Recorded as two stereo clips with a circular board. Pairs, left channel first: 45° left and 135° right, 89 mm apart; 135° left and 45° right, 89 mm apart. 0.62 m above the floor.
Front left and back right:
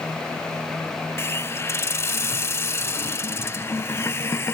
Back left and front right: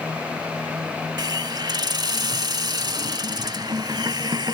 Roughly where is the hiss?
Ahead.